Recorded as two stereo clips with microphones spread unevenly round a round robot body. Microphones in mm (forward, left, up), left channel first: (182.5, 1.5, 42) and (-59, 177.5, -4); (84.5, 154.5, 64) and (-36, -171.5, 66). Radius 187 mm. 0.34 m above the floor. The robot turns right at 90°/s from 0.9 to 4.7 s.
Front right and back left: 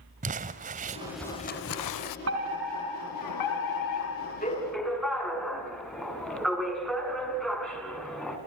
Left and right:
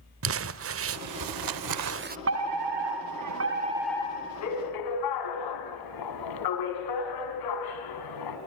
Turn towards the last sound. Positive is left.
turn(degrees=55)